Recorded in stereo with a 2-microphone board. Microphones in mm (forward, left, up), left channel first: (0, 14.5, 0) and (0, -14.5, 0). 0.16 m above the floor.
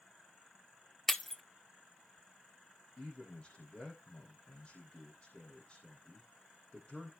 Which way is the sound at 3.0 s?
35° left (ahead or behind).